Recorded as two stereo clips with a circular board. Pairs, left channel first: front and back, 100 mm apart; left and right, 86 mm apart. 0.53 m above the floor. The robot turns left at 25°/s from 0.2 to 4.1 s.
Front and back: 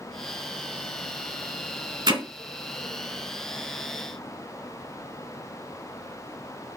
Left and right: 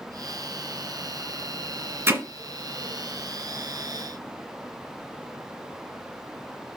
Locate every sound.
2.1 s hammering: 145° right, 1.2 m; by 2.2 s 150° right, 1.2 m